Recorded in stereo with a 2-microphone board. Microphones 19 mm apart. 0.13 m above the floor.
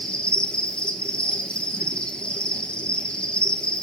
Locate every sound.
0.0 s an insect: 70° left (ahead or behind), 2.5 m